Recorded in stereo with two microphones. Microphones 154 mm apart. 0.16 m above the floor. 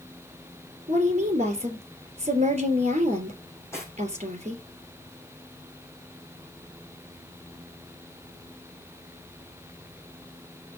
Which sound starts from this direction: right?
A woman speaking, at 0.9 s.